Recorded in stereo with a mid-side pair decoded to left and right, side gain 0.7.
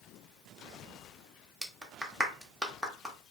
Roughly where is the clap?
Ahead.